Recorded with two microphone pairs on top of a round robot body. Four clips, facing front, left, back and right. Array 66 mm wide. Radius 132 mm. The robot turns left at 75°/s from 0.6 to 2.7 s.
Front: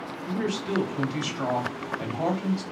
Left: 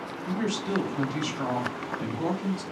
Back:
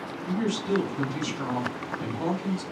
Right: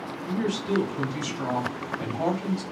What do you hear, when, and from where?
0.3 s a woman speaking: 80° left, 2.5 m; by 2.6 s 75° right, 2.5 m